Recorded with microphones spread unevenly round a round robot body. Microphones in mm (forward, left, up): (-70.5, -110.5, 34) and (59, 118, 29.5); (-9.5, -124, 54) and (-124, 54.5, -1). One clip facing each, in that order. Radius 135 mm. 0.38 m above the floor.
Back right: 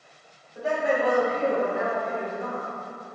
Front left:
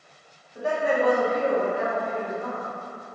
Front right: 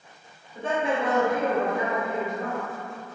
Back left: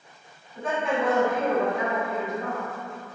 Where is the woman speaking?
15° left, 1.1 m; by 2.7 s 70° right, 1.4 m.